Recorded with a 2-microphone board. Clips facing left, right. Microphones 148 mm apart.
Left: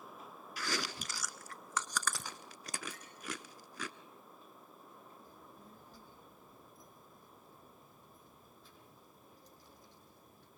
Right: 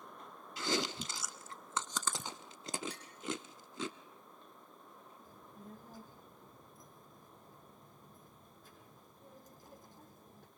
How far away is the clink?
About 4 m.